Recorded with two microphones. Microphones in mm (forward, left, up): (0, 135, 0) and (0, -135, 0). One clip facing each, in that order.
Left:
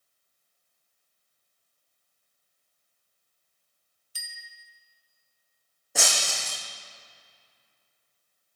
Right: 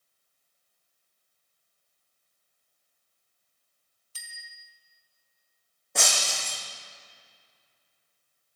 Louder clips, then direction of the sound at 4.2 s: Left 1 dB; 15° left (ahead or behind).